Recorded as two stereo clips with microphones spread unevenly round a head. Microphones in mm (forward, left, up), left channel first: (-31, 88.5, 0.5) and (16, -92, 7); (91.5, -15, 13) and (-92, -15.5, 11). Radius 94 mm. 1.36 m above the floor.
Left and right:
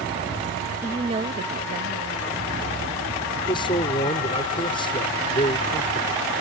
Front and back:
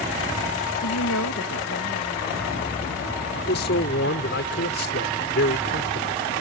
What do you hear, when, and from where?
0.8 s a woman speaking: 5° left; by 3.2 s 50° right
3.4 s a man speaking: 40° left